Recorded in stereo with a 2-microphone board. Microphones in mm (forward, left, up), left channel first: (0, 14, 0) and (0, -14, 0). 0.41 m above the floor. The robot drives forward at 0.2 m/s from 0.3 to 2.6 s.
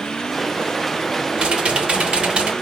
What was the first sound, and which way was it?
Typing on a keyboard, 45° right (ahead or behind).